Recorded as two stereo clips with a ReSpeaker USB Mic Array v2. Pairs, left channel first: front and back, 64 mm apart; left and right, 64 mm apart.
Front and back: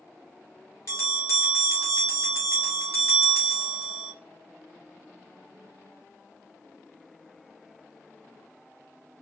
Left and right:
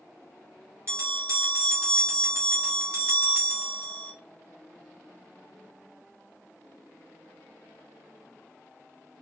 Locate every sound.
0.9 s a bell: 40° right, 2 m